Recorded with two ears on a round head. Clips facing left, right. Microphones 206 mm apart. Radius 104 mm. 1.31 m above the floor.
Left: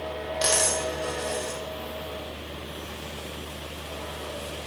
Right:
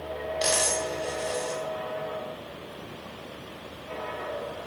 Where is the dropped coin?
10° left (ahead or behind), 0.7 m.